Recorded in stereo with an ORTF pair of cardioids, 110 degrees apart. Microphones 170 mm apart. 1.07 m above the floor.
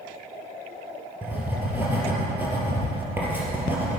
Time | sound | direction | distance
1.2 | writing | 10° right | 4 m